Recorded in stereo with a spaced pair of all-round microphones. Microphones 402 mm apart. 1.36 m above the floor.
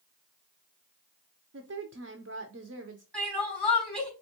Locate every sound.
1.5 s a woman speaking: 40° right (ahead or behind), 0.5 m
3.1 s crying: 65° right (ahead or behind), 3 m